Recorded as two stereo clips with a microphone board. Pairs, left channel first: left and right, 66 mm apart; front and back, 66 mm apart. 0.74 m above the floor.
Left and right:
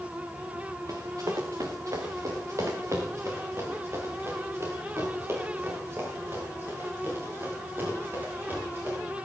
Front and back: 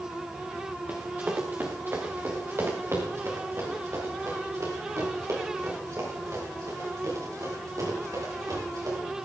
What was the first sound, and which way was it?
Running footsteps, 115° right.